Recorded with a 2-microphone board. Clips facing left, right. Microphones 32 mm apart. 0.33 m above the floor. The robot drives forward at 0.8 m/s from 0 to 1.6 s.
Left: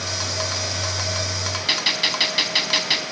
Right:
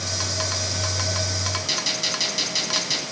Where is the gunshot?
45° left (ahead or behind), 3 m.